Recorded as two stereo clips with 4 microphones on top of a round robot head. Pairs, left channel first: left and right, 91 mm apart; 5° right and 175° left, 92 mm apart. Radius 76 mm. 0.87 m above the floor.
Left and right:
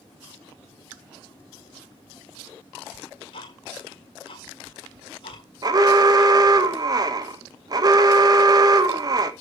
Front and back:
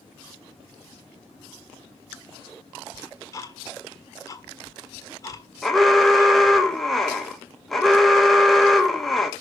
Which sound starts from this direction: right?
An alarm, at 5.6 s.